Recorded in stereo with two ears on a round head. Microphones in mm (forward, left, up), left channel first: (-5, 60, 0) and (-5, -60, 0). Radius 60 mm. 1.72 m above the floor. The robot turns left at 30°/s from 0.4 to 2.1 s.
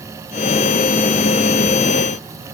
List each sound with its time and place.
Only background noise.